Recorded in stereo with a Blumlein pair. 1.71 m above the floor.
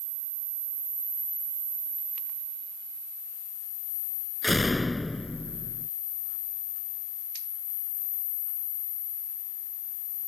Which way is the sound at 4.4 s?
5° left.